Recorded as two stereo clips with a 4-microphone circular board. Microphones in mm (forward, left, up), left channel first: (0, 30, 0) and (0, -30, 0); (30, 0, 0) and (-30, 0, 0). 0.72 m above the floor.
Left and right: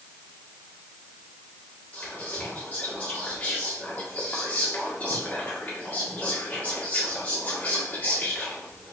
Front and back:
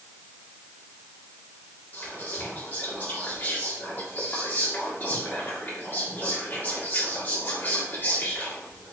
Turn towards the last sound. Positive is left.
turn(degrees=35)